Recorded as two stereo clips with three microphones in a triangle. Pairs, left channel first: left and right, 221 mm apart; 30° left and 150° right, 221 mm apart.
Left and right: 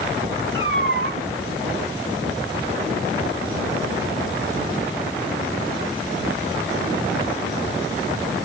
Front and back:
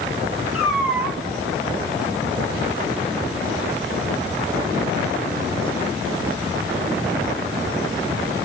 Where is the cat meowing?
65° right, 1.9 m.